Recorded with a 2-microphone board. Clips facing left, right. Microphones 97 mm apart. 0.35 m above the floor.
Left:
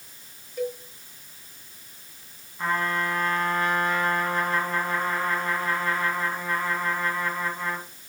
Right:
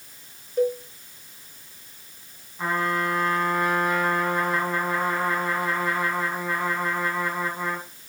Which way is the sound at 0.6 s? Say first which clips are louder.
Right 7 dB; 35° right (ahead or behind).